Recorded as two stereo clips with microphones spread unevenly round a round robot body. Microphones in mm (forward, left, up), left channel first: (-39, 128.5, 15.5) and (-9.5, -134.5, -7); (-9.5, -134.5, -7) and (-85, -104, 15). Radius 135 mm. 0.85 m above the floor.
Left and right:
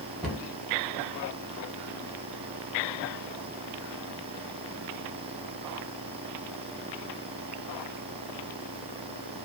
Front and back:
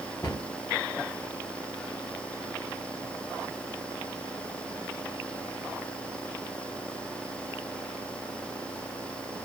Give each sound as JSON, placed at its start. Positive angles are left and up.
{"t": 0.2, "sound": "a cupboard door", "azimuth_deg": 5, "distance_m": 0.8}